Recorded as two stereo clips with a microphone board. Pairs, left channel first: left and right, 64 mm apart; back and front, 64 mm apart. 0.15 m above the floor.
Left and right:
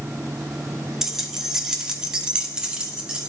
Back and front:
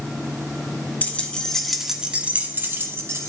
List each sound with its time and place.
1.0 s keys jangling: 165° right, 0.9 m; by 3.3 s 15° right, 1.2 m